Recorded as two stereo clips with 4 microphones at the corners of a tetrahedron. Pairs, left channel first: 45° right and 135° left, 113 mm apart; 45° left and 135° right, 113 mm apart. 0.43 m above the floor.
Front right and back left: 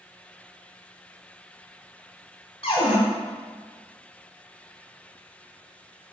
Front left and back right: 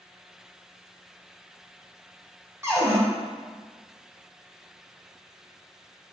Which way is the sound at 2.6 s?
75° right.